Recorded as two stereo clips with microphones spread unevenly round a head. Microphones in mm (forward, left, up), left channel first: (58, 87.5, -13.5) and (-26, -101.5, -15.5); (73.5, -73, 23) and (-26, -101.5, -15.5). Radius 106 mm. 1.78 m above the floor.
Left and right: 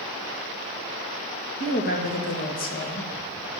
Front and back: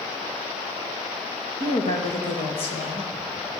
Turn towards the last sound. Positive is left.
turn(degrees=15)